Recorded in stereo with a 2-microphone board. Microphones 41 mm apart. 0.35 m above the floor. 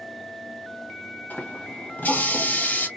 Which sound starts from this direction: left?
A running tap, at 1.3 s.